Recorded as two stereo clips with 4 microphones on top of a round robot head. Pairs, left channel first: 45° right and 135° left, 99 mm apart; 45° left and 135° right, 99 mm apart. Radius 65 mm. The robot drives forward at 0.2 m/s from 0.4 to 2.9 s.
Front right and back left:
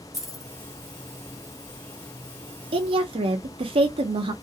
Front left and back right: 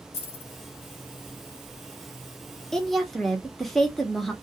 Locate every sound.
0.1 s keys jangling: 45° left, 1.2 m; by 0.5 s 50° left, 1.1 m
2.7 s a woman speaking: 130° left, 0.8 m; by 4.3 s 135° left, 0.8 m